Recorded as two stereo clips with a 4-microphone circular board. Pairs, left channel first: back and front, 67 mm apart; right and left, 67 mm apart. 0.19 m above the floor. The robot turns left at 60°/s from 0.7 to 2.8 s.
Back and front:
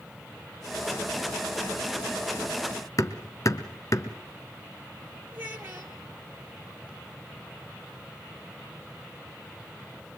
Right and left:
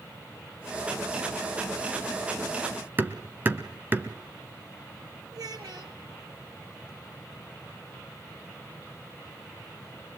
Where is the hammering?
150° left, 1.6 m.